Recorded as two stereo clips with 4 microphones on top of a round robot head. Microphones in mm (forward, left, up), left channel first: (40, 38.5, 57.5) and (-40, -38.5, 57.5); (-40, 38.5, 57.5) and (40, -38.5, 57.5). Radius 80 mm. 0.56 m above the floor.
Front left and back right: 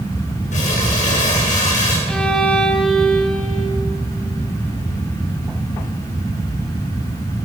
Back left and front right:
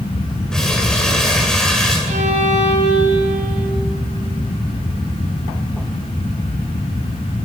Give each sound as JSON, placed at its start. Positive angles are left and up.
{"t": 0.5, "sound": "crumpling", "azimuth_deg": 50, "distance_m": 9.5}
{"t": 2.1, "sound": "a violin", "azimuth_deg": -35, "distance_m": 4.5}